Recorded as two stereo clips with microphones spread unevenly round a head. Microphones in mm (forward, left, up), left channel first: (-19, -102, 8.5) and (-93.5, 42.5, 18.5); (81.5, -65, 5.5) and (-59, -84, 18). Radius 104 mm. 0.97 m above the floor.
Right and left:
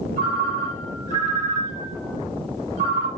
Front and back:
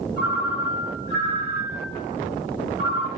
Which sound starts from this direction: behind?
A ringtone, at 0.2 s.